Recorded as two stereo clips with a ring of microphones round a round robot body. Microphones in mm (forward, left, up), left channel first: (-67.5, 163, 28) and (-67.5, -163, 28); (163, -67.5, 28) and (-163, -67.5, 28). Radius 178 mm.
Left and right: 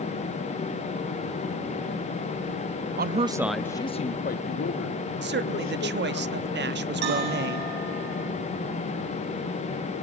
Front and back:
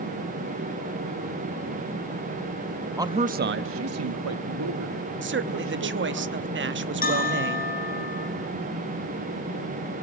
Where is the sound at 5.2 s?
135° right, 1.1 m.